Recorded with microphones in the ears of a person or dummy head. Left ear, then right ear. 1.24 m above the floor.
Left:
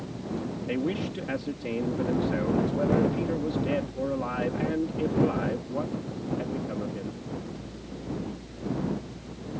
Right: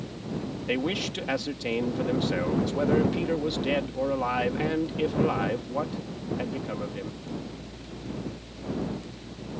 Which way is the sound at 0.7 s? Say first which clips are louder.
Right 3 dB; 30° right (ahead or behind).